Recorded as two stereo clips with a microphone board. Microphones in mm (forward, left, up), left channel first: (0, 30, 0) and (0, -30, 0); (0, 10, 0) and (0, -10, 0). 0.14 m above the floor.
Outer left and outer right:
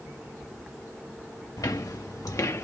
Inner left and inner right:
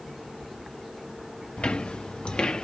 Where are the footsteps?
85° left, 1.0 m; by 2.6 s 50° left (ahead or behind), 0.8 m.